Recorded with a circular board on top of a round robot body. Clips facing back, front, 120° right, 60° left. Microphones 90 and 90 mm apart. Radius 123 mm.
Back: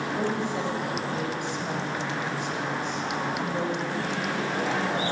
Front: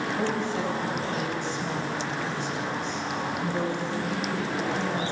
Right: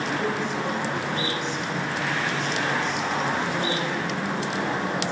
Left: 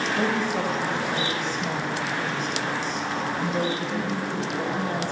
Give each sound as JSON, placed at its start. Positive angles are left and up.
{"t": 0.1, "sound": "a woman speaking", "azimuth_deg": 105, "distance_m": 3.0}